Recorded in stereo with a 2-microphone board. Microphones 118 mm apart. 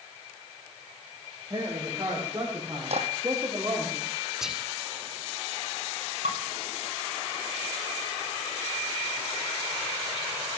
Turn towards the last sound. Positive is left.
turn(degrees=-85)